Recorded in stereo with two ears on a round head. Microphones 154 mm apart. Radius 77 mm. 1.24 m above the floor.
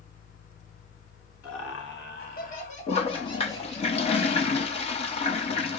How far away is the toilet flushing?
About 0.6 m.